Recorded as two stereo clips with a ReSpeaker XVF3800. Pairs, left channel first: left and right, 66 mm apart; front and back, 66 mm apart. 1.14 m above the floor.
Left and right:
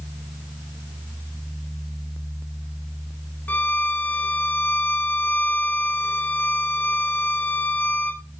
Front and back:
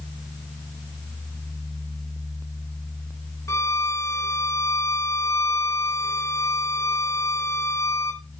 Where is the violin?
30° left, 1.4 m.